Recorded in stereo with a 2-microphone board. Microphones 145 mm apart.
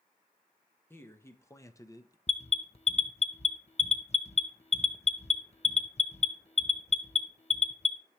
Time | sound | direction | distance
0.9 | a man speaking | 15° left (ahead or behind) | 1.1 m
2.3 | an alarm | 50° left (ahead or behind) | 0.7 m